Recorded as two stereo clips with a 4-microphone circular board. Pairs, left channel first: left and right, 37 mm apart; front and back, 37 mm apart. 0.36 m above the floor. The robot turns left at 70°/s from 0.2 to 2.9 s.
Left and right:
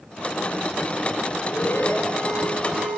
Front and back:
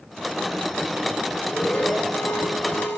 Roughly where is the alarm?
Left.